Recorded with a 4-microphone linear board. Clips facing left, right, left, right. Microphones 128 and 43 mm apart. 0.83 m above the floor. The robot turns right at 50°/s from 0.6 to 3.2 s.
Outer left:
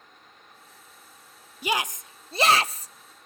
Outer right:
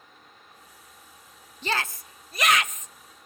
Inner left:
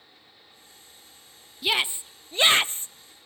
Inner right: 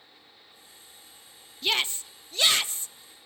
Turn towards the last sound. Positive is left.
turn(degrees=95)